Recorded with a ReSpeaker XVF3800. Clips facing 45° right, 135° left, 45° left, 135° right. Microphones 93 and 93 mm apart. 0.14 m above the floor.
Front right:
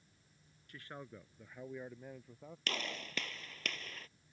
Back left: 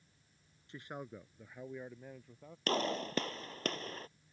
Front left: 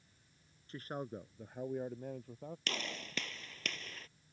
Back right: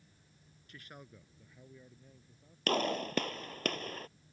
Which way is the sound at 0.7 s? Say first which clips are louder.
Back left 4 dB, front left 11 dB; 80° left.